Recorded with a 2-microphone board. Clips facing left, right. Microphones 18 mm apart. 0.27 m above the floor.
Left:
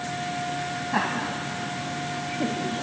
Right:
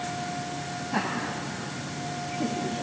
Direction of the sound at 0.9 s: 20° left (ahead or behind).